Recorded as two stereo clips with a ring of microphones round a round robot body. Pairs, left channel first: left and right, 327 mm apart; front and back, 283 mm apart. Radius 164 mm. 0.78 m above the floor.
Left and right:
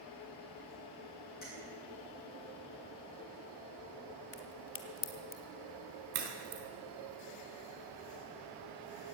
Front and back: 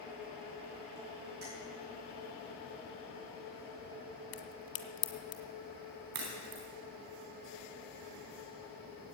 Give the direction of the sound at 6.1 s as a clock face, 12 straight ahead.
5 o'clock.